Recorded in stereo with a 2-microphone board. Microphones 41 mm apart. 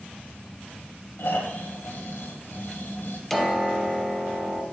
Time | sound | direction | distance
1.2 | snoring | 65° left (ahead or behind) | 0.9 m
3.3 | a piano | 5° left (ahead or behind) | 0.6 m